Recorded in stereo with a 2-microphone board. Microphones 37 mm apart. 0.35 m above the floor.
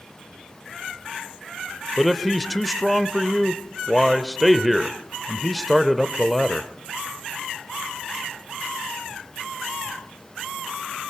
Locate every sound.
2.0 s a man speaking: centre (ahead or behind), 1.0 m